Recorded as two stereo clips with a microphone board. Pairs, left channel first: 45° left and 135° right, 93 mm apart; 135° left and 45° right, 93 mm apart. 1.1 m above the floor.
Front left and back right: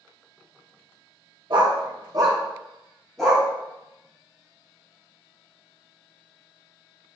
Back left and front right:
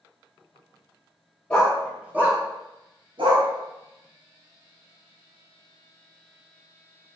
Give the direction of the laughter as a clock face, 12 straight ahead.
I don't hear laughter.